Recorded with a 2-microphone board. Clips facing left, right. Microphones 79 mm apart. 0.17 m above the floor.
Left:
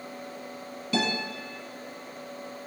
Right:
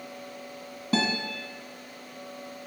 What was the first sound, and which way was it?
A guitar, 35° right (ahead or behind).